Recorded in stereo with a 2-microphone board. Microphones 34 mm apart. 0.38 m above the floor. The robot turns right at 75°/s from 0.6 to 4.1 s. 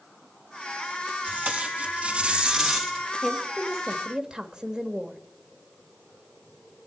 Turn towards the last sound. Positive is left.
turn(degrees=-145)